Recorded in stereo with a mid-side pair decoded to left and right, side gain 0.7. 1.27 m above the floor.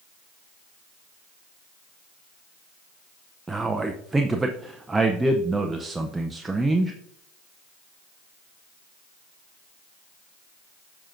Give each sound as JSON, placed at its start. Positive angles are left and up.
{"t": 3.5, "sound": "a man speaking", "azimuth_deg": -10, "distance_m": 0.6}